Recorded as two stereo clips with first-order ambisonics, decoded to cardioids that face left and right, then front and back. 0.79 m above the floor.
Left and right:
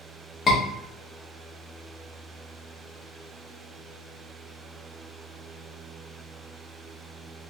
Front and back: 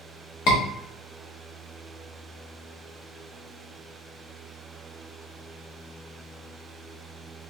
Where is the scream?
20° left, 1.5 m.